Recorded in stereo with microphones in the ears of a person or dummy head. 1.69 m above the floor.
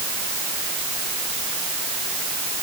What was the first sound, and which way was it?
Only background noise.